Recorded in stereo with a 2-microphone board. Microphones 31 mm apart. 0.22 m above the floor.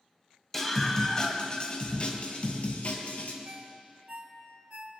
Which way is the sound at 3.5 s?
45° right (ahead or behind).